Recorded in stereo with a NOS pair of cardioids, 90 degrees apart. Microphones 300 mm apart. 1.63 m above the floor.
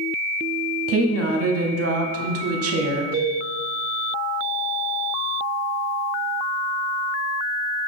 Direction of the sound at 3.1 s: 5° left.